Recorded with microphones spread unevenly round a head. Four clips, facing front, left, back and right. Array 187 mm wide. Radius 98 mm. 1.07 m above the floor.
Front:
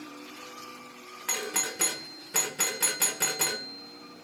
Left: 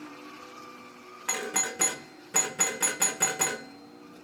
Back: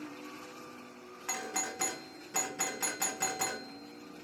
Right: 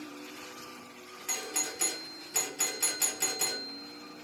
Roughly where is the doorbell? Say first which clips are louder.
Left 7 dB, front 3 dB; ahead left.